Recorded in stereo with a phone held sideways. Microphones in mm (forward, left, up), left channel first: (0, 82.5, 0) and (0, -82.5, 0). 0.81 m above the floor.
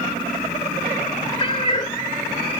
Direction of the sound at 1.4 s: 35° left (ahead or behind).